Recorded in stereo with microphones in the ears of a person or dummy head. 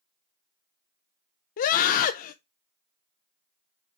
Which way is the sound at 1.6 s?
55° left (ahead or behind).